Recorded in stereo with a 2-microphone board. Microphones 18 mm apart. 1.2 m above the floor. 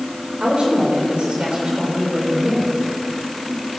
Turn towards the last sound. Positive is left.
turn(degrees=-65)  # may be behind; listen again after turning